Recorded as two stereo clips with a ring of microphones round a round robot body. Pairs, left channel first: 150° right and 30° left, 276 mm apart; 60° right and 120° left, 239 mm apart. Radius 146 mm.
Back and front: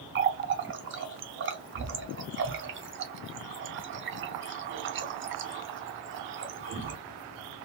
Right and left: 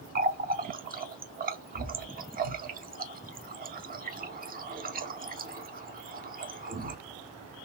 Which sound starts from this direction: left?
A running tap, at 0.1 s.